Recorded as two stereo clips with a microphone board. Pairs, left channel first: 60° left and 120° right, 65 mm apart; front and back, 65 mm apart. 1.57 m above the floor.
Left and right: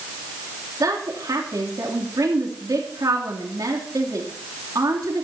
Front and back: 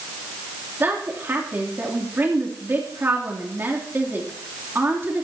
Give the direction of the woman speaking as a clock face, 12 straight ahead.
4 o'clock.